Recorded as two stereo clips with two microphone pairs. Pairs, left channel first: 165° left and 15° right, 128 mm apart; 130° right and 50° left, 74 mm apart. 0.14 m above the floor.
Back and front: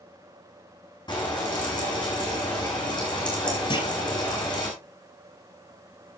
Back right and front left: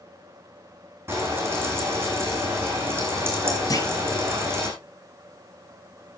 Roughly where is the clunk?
Behind right.